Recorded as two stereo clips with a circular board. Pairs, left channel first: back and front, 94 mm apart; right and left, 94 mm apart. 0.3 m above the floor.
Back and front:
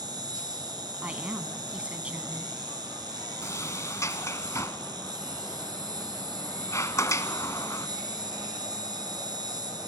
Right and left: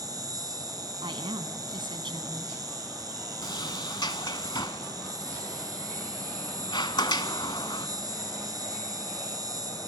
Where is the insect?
40° left, 4 m.